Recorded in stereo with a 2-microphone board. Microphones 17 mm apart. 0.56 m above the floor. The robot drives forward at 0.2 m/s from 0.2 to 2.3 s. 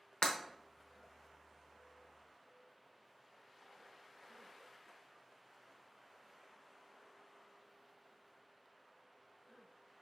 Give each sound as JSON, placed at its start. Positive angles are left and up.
{"t": 0.2, "sound": "breaking glass", "side_deg": 70, "distance_m": 0.9}